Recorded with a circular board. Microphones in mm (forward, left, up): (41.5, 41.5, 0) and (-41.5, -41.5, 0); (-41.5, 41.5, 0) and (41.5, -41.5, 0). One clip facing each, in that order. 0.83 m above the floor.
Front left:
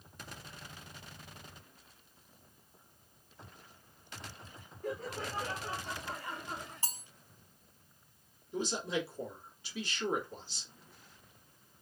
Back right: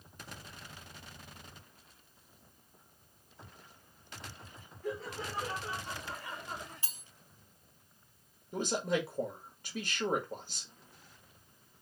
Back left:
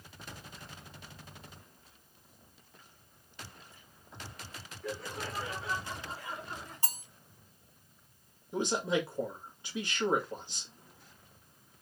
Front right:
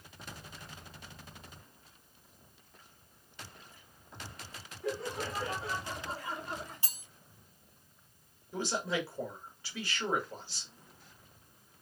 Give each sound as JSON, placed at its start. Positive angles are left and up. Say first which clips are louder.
{"t": 4.8, "sound": "laughter", "louder": "even, front right 3 dB", "azimuth_deg": 20, "distance_m": 1.4}
{"t": 6.8, "sound": "cutlery clinking", "louder": "front left 7 dB, back left 8 dB", "azimuth_deg": 90, "distance_m": 0.5}
{"t": 8.5, "sound": "a man speaking", "louder": "back right 3 dB, back left 3 dB", "azimuth_deg": -160, "distance_m": 1.8}